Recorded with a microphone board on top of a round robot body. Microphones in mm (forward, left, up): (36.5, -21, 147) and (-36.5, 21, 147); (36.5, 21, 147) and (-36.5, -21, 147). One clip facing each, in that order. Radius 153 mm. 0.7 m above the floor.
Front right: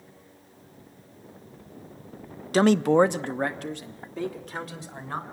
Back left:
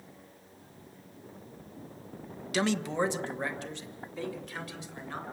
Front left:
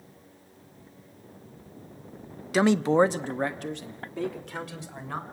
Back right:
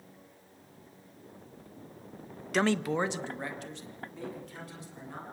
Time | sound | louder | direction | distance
2.5 | a man speaking | front right 11 dB, front left 7 dB | 55° right | 0.8 m